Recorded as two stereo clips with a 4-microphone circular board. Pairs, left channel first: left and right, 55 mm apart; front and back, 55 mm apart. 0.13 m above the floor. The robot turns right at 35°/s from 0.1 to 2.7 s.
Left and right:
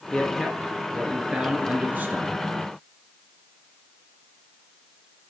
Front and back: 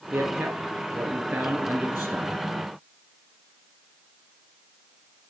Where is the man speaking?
175° left, 1.9 m; by 2.4 s 105° right, 1.9 m.